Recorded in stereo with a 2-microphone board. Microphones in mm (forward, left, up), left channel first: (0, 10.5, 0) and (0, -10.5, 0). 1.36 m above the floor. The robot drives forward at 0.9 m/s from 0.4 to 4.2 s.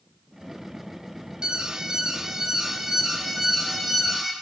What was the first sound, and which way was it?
An alarm, 40° right (ahead or behind).